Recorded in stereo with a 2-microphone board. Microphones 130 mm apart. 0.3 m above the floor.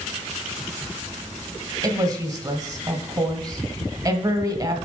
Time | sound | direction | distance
1.8 | a woman speaking | 30° right (ahead or behind) | 1.2 m